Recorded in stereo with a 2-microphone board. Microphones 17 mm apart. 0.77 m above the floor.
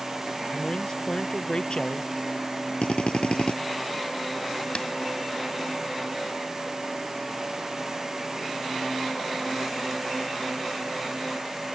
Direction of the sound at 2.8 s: 85° left.